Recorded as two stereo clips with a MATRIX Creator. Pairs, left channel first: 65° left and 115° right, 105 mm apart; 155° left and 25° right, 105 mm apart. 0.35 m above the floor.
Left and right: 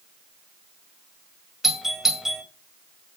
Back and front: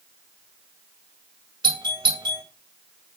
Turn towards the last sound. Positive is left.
turn(degrees=-25)